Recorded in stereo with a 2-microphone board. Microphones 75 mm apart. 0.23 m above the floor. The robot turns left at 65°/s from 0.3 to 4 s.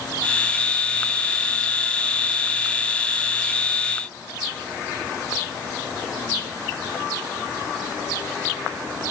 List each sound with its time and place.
Only background noise.